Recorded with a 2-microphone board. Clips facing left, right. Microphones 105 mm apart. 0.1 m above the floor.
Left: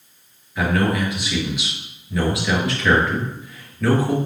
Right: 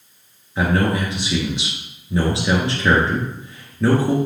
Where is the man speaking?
30° right (ahead or behind), 1.4 m.